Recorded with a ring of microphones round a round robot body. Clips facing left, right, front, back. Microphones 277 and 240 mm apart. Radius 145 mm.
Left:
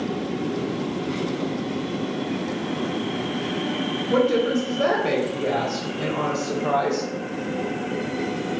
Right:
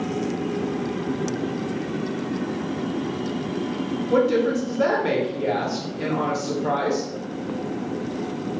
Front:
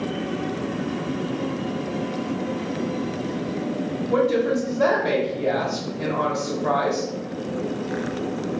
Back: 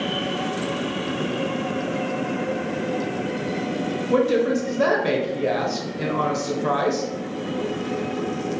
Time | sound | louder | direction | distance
4.1 | a woman speaking | even, back 1 dB | straight behind | 0.8 m